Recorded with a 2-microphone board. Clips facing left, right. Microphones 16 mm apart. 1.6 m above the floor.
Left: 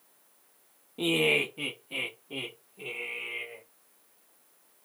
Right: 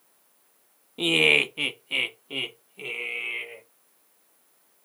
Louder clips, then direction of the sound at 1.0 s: Right 6 dB; 25° right (ahead or behind).